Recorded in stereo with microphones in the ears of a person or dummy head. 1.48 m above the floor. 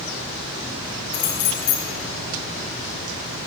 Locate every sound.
1.1 s keys jangling: 60° left (ahead or behind), 3 m